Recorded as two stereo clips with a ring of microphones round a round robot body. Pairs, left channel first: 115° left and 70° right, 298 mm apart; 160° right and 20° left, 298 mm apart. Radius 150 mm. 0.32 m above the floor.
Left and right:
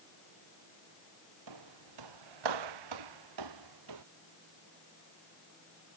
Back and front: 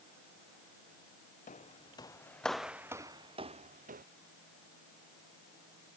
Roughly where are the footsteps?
Right.